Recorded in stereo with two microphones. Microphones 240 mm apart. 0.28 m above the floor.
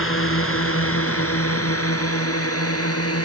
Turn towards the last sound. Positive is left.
turn(degrees=75)  # may be behind; listen again after turning